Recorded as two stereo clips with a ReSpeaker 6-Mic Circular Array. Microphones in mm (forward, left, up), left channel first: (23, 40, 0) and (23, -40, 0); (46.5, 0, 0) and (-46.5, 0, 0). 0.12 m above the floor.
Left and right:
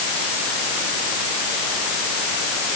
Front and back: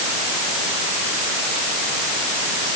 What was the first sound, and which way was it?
Only background noise.